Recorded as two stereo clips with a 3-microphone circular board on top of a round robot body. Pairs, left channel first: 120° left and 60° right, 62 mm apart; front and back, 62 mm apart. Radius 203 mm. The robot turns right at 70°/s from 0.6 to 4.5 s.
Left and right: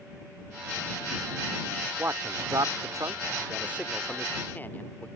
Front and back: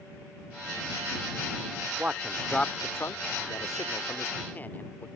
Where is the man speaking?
115° right; by 5.1 s 60° left.